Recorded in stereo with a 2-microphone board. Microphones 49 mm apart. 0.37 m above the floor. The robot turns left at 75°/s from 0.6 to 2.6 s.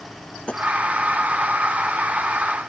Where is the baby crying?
I don't hear a baby crying.